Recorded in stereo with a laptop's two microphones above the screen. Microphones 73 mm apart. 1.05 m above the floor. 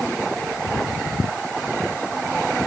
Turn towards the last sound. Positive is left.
No sound to turn to.